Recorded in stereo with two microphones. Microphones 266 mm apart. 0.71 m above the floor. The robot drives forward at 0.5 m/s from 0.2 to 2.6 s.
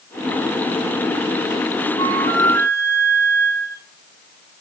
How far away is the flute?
About 4 m.